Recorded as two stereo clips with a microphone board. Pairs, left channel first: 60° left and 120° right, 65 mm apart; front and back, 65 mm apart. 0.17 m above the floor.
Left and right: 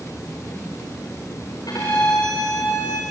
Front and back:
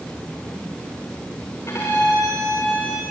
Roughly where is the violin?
Ahead left.